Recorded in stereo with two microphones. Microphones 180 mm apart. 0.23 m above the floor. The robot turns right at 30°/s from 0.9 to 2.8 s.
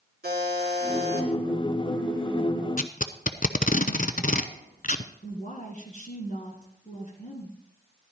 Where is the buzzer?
60° right (ahead or behind), 2.5 m; by 1.3 s 50° right (ahead or behind), 2.5 m.